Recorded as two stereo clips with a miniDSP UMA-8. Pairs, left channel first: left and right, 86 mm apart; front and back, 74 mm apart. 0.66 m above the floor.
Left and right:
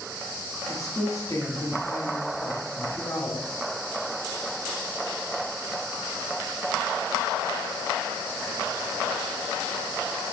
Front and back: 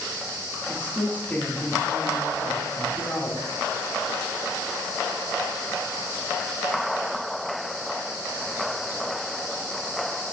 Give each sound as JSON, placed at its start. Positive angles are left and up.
{"t": 0.7, "sound": "a woman speaking", "azimuth_deg": 55, "distance_m": 1.4}